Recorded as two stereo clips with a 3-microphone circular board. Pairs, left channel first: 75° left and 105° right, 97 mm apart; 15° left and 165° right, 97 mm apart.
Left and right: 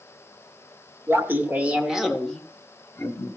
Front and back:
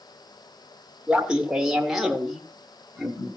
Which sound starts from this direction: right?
Laughter, at 1.1 s.